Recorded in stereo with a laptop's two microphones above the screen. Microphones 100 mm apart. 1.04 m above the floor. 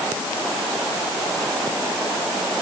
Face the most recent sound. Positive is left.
No sound to turn to.